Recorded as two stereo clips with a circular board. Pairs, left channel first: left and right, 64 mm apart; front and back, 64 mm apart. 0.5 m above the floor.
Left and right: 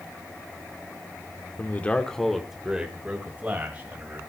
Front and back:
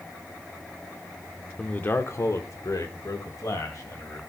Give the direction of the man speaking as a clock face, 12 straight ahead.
10 o'clock.